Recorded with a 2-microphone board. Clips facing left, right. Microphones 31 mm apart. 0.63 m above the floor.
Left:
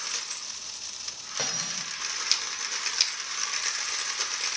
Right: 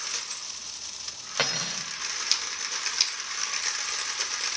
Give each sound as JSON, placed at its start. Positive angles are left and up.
{"t": 1.4, "sound": "cutlery clinking", "side_deg": -50, "distance_m": 1.6}